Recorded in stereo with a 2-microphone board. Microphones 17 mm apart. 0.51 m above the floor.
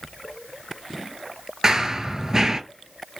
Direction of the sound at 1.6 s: 35° right (ahead or behind).